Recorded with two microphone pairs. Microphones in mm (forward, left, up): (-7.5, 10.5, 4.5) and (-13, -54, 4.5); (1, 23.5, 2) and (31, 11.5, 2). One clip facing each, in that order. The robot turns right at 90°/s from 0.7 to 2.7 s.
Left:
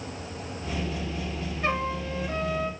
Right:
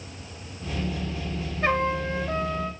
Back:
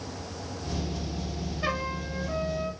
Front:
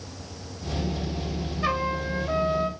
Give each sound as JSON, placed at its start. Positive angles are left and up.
{"t": 1.6, "sound": "a trumpet", "azimuth_deg": -115, "distance_m": 1.9}